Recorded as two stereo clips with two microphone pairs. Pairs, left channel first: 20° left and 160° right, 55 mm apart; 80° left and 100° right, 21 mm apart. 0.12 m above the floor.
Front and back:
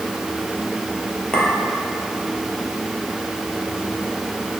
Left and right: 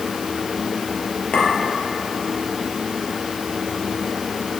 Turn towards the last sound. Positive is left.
turn(degrees=85)